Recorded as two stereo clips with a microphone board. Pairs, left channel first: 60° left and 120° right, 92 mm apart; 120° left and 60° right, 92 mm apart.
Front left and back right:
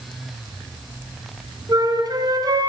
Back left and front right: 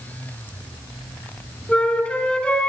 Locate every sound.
1.7 s a flute: 160° right, 3.5 m